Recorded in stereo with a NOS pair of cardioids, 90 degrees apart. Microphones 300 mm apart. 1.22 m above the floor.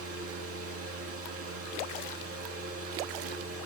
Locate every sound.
0.0 s a fan: 50° right, 3.5 m